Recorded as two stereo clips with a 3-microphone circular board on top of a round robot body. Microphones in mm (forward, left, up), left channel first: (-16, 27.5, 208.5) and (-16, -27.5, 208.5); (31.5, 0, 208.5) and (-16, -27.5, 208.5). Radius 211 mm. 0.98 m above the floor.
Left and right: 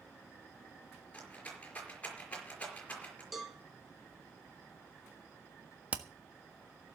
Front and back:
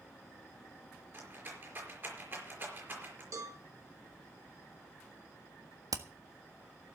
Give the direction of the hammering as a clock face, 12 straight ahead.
5 o'clock.